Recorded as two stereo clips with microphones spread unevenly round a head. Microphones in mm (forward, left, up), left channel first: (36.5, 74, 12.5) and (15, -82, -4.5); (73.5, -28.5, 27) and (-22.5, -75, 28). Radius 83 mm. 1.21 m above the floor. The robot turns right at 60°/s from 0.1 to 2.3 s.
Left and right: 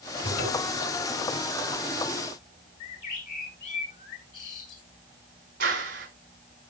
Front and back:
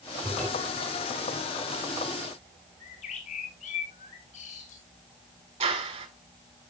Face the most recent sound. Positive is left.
turn(degrees=-140)